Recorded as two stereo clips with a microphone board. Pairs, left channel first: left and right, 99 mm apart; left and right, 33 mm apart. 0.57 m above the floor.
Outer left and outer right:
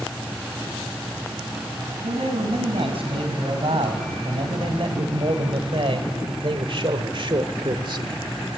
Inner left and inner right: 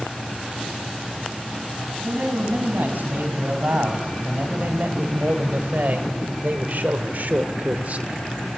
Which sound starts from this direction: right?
A man speaking, at 2.0 s.